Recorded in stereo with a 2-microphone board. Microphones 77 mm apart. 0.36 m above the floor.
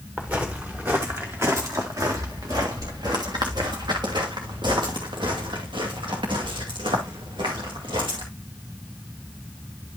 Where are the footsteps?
20° right (ahead or behind), 2 m; by 8.2 s 85° right, 4 m.